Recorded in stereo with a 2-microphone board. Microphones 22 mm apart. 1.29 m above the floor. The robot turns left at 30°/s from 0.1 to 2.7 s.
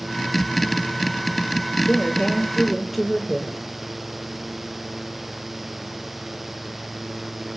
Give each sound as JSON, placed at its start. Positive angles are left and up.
{"t": 1.9, "sound": "a woman speaking", "side_deg": 20, "distance_m": 1.4}